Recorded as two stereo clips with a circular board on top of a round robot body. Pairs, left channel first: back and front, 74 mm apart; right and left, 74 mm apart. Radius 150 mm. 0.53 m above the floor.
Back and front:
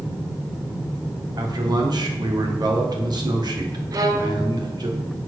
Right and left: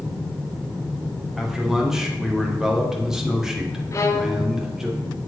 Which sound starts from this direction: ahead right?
A violin, at 3.9 s.